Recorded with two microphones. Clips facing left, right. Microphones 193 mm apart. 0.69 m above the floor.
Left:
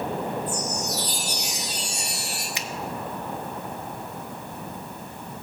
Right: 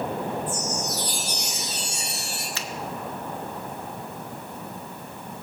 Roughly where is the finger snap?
Centre.